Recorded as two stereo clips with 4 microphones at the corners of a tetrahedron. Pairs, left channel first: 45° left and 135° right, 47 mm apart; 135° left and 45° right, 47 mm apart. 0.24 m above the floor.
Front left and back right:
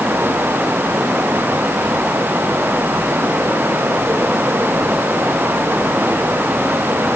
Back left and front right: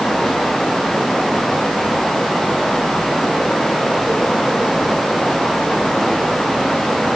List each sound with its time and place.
Only background noise.